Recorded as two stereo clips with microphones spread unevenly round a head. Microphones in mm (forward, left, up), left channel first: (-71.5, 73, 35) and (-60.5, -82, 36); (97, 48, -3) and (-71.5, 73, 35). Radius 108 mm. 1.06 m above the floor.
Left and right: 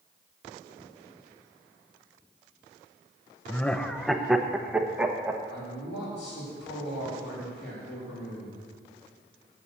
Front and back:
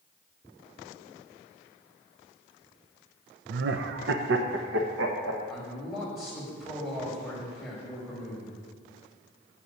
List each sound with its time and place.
3.5 s laughter: 170° left, 0.7 m; by 5.4 s 165° right, 1.5 m
5.5 s a man speaking: 85° left, 6 m